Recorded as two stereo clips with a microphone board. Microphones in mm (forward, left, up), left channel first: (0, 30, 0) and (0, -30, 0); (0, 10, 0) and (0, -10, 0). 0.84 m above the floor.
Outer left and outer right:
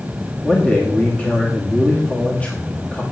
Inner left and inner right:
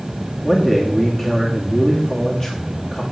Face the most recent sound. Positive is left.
turn(degrees=25)  # may be behind; listen again after turning